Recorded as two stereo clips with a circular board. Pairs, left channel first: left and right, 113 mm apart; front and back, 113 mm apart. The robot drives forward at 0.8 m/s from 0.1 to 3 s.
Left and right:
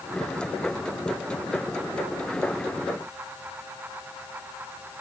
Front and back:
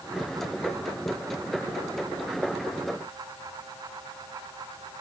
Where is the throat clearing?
No throat clearing in this recording.